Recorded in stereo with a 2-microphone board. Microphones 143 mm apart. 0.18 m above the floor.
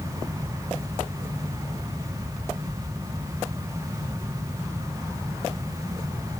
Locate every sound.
Only background noise.